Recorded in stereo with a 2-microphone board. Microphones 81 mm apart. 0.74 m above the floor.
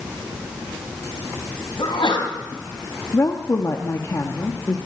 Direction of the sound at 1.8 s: 85° left.